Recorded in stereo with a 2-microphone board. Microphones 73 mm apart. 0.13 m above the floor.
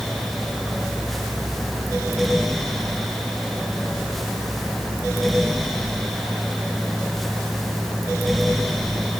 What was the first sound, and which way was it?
Only background noise.